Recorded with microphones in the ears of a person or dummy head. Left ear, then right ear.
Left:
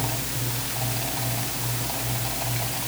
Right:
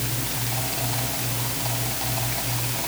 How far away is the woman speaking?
No woman speaking in this recording.